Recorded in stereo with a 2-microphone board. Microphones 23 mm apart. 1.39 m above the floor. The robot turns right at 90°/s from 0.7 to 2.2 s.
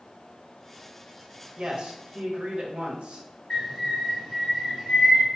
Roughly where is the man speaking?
Behind right.